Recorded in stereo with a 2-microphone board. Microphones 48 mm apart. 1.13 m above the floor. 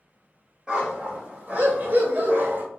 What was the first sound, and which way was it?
A dog barking, 20° right (ahead or behind).